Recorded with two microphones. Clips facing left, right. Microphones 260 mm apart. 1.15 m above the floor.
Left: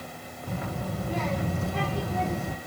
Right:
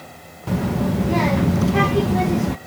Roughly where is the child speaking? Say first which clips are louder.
Right 13 dB; right.